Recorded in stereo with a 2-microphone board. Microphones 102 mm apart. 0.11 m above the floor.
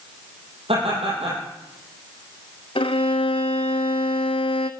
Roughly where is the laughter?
Right.